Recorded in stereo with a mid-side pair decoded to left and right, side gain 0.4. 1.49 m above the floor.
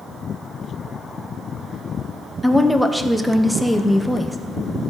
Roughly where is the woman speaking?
Ahead.